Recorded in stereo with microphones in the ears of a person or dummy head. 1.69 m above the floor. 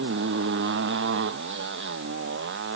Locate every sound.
0.0 s a motorcycle: 60° right (ahead or behind)